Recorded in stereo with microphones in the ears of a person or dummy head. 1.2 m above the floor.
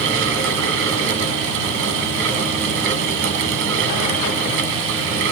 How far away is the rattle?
I don't hear a rattle.